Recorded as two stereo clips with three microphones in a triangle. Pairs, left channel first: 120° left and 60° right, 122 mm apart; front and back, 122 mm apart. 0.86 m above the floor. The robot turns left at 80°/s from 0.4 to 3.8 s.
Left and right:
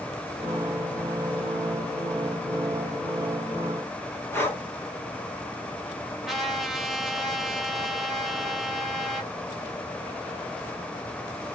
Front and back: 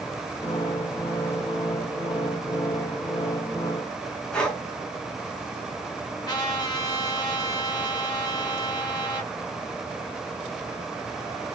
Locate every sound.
4.3 s breathing: 75° left, 1.0 m
6.3 s a trumpet: 25° left, 1.2 m